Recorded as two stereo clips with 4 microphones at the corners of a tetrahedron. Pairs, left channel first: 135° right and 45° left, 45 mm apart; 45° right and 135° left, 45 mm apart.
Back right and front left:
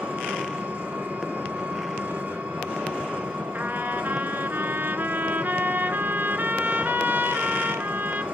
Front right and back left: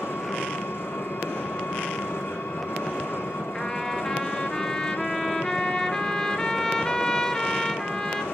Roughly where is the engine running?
Ahead.